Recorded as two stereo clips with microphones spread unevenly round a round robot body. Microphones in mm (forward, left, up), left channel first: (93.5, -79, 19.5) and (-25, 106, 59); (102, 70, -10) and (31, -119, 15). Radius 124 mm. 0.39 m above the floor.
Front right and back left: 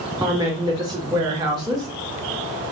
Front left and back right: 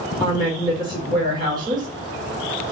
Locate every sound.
0.2 s a woman speaking: 165° right, 1.0 m